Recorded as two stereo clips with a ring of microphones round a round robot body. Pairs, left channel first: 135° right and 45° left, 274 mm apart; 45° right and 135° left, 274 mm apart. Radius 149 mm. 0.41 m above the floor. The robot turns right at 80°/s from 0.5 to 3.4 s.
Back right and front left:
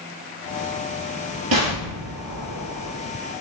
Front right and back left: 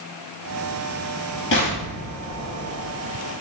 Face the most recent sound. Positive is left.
turn(degrees=155)